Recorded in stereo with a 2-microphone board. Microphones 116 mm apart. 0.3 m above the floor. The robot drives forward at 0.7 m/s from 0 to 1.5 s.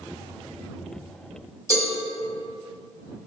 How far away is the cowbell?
About 0.9 m.